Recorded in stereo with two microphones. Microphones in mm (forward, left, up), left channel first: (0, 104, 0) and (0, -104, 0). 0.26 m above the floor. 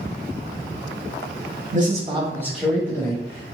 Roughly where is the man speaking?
Right.